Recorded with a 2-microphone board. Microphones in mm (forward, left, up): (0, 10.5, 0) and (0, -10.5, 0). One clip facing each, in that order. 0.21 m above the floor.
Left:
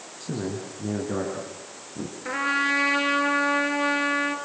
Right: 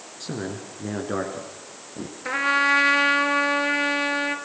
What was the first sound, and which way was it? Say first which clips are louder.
A man speaking: left 1 dB; 25° right (ahead or behind).